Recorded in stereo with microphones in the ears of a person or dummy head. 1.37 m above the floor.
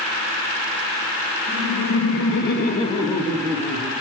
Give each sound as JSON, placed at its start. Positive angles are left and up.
{"t": 1.5, "sound": "laughter", "side_deg": 65, "distance_m": 2.0}